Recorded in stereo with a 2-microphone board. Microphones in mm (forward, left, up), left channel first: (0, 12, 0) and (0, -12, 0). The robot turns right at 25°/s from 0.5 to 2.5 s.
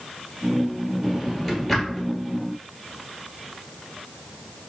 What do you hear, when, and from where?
1.0 s a drawer: centre (ahead or behind), 1.5 m; by 2.1 s 20° left (ahead or behind), 1.5 m